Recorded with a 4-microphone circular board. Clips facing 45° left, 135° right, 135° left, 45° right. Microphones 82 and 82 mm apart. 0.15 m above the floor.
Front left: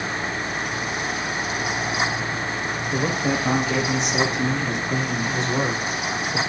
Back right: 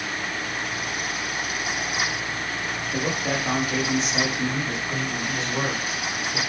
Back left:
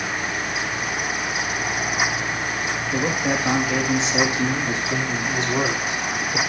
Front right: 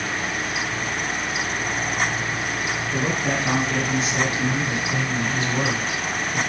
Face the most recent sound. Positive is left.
turn(degrees=85)